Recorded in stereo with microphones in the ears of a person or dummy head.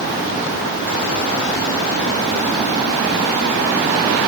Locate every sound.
Only background noise.